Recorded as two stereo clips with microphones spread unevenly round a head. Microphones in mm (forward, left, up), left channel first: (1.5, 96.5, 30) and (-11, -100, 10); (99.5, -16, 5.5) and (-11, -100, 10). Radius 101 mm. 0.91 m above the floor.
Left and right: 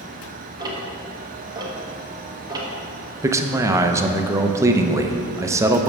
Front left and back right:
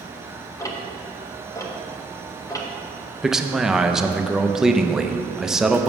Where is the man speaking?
55° right, 0.5 m.